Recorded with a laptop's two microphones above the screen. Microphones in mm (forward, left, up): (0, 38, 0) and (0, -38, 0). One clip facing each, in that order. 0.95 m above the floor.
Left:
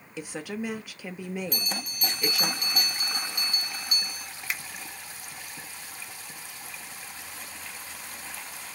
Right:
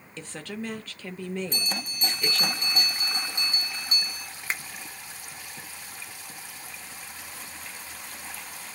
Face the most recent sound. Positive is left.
turn(degrees=-35)  # may be behind; listen again after turning